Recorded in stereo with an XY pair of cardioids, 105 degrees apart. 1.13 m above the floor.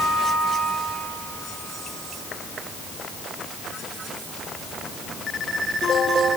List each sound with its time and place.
Only background noise.